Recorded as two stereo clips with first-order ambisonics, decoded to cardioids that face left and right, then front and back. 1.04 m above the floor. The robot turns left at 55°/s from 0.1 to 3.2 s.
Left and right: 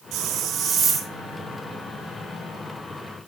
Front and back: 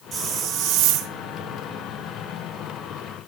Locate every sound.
0.1 s a hiss: 125° right, 1.8 m; by 1.1 s straight behind, 1.8 m